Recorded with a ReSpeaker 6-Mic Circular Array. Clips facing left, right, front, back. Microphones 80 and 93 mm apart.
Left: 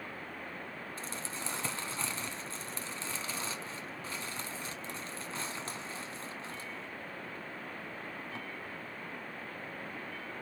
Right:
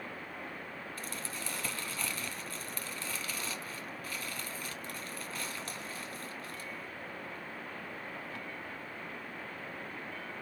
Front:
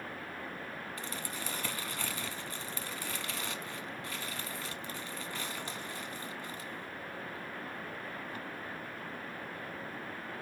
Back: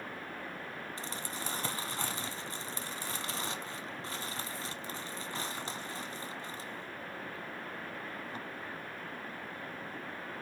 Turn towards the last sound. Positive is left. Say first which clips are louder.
# left 2 dB, even
turn(degrees=135)